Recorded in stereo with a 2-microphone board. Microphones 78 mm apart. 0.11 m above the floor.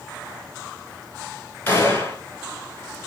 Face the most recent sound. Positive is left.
turn(degrees=25)  # may be behind; listen again after turning